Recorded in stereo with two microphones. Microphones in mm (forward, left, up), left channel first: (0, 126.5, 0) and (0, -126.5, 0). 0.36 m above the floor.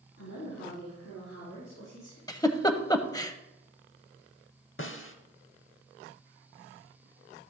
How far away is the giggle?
About 0.5 m.